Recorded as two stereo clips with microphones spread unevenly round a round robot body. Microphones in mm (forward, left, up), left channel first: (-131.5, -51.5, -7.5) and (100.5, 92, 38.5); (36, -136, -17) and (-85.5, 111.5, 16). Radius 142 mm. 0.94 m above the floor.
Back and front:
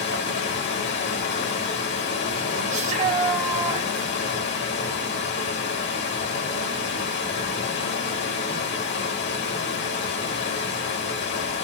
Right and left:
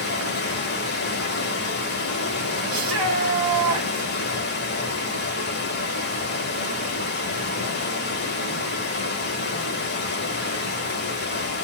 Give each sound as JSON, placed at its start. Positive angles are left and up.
{"t": 0.0, "sound": "running water", "azimuth_deg": -110, "distance_m": 0.9}
{"t": 2.7, "sound": "a shout", "azimuth_deg": 75, "distance_m": 1.3}